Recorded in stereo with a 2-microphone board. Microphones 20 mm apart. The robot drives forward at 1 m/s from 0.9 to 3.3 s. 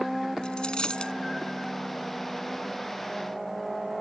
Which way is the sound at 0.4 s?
45° left (ahead or behind).